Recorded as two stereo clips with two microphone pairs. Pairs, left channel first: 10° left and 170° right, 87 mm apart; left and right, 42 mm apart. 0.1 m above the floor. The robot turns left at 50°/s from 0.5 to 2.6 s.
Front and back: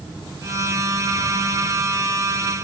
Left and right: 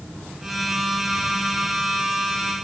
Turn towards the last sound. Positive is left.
No sound to turn to.